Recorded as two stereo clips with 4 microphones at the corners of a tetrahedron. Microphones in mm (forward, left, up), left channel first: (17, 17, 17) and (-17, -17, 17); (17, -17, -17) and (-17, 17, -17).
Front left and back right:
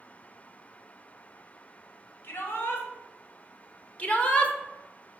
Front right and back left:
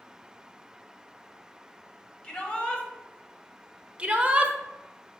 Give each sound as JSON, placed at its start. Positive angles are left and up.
{"t": 2.2, "sound": "a shout", "azimuth_deg": 20, "distance_m": 1.5}
{"t": 4.0, "sound": "a shout", "azimuth_deg": 85, "distance_m": 1.1}